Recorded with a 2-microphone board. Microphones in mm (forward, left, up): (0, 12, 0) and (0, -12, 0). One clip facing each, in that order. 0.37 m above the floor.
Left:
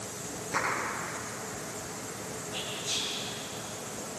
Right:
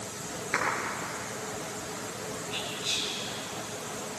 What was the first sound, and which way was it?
A clap, 50° right (ahead or behind).